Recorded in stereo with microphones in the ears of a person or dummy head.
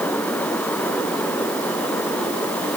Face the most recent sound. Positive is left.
No sound to turn to.